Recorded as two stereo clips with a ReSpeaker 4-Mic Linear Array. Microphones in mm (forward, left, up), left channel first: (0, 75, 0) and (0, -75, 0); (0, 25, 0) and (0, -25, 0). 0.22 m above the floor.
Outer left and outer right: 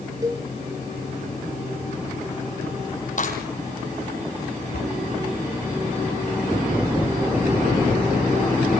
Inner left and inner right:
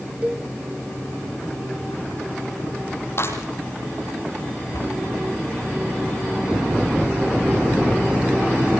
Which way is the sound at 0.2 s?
25° right (ahead or behind).